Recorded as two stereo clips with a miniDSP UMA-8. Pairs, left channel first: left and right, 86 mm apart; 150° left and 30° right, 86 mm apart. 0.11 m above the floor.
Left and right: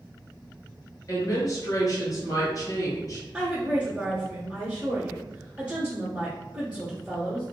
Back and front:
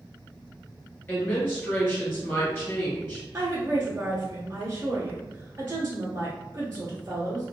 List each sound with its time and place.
1.1 s a woman speaking: 100° left, 1.7 m
3.3 s a woman speaking: 35° right, 1.2 m